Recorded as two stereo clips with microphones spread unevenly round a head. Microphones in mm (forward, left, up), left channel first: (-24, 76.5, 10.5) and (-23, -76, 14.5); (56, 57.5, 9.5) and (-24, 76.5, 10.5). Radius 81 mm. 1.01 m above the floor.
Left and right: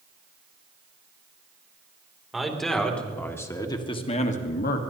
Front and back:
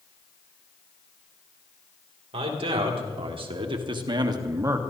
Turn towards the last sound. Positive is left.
turn(degrees=110)